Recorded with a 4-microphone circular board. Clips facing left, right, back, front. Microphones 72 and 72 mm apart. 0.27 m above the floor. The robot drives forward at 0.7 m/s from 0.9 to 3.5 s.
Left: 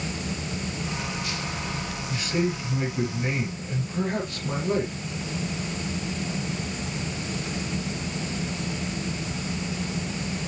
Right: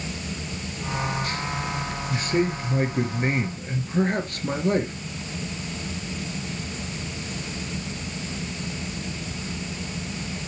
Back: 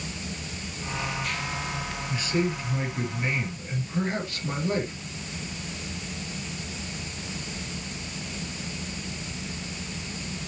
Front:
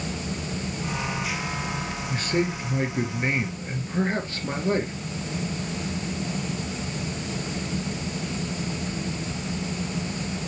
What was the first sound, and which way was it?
A man speaking, 45° right.